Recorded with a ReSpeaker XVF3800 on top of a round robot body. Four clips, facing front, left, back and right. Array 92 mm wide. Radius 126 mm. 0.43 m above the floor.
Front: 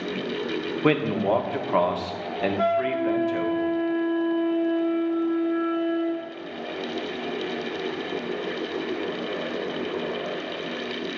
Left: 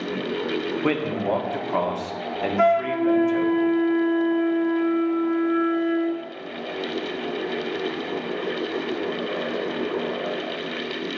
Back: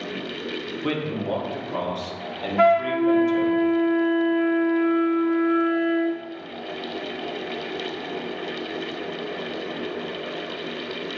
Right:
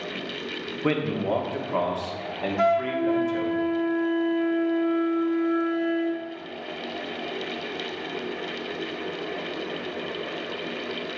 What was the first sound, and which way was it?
A man speaking, 15° left.